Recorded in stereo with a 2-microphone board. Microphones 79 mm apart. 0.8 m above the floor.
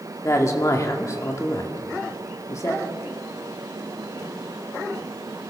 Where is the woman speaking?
40° left (ahead or behind), 2.0 m.